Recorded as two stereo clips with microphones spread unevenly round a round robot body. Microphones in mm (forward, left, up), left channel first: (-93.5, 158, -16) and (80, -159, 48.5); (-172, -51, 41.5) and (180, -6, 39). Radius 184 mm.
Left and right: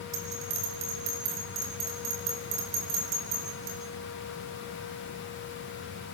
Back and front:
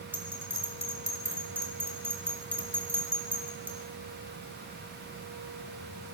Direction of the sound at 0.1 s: 80° right.